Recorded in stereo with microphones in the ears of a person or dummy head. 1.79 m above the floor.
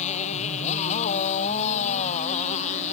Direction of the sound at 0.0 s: 40° left (ahead or behind).